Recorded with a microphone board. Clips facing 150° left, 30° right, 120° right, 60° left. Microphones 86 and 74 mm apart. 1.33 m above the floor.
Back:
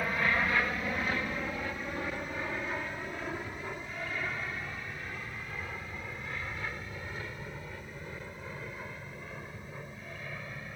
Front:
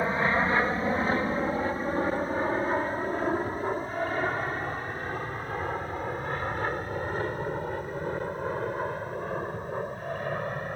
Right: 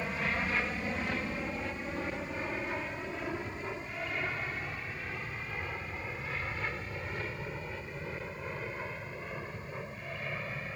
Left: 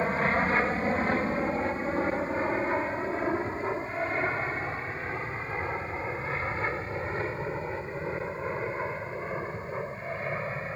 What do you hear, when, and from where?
0.0 s an aircraft: 25° left; by 10.8 s 5° left